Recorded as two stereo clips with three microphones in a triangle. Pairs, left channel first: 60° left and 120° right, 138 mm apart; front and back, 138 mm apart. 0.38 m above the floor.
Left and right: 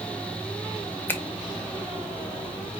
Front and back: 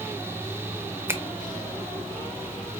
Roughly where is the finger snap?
Behind left.